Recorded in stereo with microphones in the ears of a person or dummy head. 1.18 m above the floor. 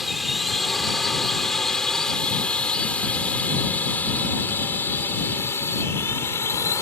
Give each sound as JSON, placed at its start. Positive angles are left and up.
{"t": 0.0, "sound": "a drone", "side_deg": 0}